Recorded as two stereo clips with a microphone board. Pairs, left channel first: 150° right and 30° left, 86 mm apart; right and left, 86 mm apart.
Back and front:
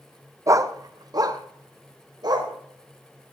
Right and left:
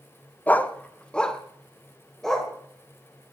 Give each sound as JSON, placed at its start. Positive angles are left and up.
{"t": 0.5, "sound": "a dog barking", "azimuth_deg": -20, "distance_m": 0.6}